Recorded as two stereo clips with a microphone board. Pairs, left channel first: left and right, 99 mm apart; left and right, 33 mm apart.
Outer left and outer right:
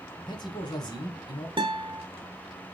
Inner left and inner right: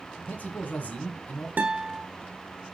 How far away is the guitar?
About 1.3 m.